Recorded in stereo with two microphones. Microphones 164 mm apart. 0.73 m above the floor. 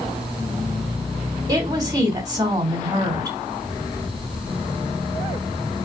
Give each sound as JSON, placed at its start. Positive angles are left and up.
{"t": 1.5, "sound": "a woman speaking", "side_deg": -25, "distance_m": 2.5}